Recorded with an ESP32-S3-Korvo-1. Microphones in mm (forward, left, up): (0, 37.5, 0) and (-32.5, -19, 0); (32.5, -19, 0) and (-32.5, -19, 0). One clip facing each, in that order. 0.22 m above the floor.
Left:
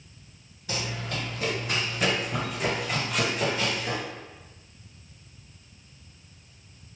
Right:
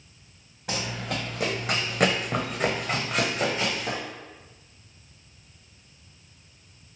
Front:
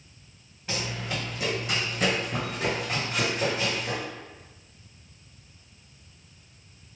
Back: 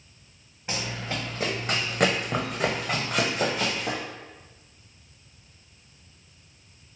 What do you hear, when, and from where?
0.7 s running footsteps: 110° right, 1.2 m; by 4.0 s 165° left, 1.6 m